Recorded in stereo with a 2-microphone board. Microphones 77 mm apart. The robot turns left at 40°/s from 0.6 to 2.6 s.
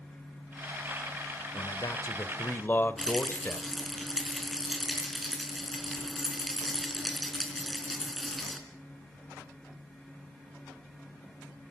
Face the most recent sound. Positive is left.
turn(degrees=0)  # may be behind; listen again after turning